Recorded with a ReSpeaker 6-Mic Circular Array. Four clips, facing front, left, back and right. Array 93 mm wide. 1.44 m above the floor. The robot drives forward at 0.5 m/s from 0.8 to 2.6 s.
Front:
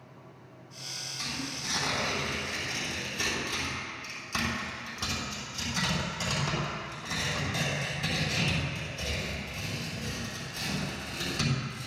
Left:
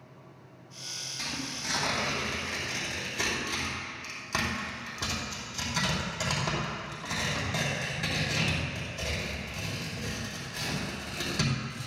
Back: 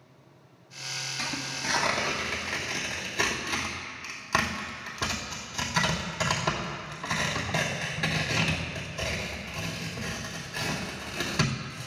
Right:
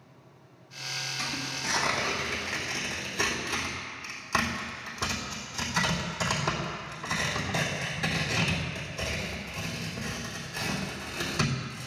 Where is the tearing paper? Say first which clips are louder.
Right 1 dB, back 2 dB; 170° right, 4 m; by 11.9 s 175° right, 4.5 m.